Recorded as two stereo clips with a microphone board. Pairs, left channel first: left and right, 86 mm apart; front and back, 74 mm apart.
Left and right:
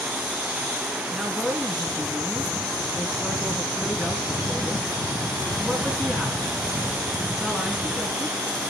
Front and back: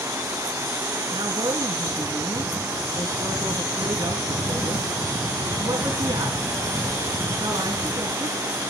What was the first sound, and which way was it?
A man speaking, 175° right.